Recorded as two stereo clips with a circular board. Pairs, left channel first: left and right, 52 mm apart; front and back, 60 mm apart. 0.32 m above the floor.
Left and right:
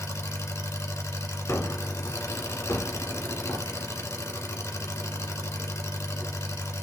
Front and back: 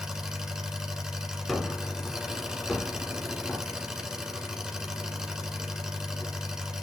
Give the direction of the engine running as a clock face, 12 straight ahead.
9 o'clock.